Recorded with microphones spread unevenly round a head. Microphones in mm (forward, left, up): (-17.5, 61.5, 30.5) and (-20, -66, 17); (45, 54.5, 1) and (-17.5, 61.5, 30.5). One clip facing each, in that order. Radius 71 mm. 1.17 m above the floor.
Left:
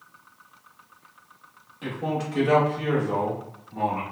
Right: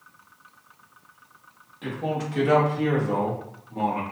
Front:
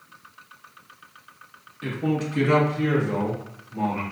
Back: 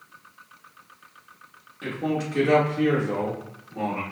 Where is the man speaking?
175° left, 2 m; by 4.0 s 150° right, 1.6 m.